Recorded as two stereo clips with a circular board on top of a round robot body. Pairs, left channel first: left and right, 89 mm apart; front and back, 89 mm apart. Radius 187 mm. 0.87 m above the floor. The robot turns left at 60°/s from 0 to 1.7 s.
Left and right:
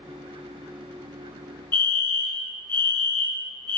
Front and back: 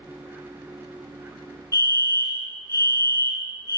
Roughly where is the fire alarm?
Behind left.